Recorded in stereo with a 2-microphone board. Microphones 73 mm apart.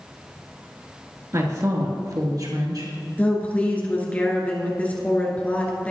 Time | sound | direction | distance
1.3 | a woman speaking | 45° right (ahead or behind) | 2 m
3.2 | a woman speaking | 20° left (ahead or behind) | 2.5 m